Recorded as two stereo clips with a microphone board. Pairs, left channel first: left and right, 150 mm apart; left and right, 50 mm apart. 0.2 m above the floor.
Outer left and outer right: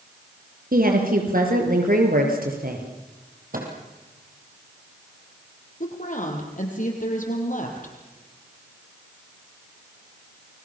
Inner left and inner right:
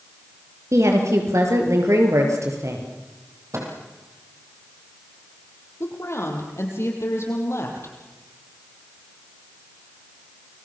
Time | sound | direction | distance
0.7 | a woman speaking | 75° right (ahead or behind) | 5 m
3.5 | a microwave | 65° right (ahead or behind) | 4.5 m
5.8 | a woman speaking | 60° left (ahead or behind) | 5.5 m